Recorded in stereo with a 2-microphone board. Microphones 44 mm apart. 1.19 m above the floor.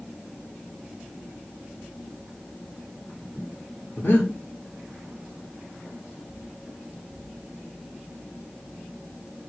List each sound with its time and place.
4.0 s breathing: 60° left (ahead or behind), 1.0 m